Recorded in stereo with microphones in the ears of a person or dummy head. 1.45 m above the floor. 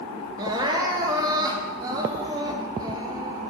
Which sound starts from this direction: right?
Crying, at 0.4 s.